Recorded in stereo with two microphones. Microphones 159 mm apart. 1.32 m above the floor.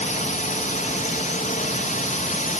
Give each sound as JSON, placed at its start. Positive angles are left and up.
{"t": 0.0, "sound": "a drone", "side_deg": 55}